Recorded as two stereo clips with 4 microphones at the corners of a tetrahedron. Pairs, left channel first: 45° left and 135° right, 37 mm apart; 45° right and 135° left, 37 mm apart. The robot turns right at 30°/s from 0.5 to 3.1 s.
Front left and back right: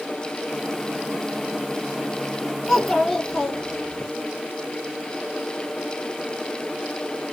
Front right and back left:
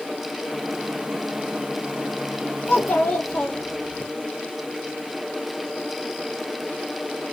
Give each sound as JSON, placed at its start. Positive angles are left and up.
{"t": 2.7, "sound": "a child speaking", "azimuth_deg": -50, "distance_m": 1.5}